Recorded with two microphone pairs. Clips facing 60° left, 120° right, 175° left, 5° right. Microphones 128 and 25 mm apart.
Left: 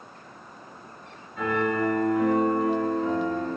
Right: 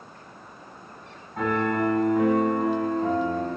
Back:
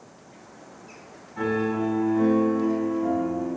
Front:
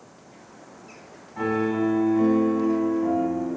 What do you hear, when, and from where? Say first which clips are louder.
1.4 s a piano: right 1 dB, front 1 dB; 85° right, 5.5 m